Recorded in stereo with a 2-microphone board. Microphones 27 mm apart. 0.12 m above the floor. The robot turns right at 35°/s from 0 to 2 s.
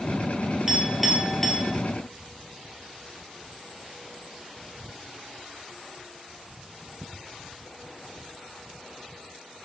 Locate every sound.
0.7 s a clink: 15° right (ahead or behind), 1.5 m; by 1.7 s 15° left (ahead or behind), 1.5 m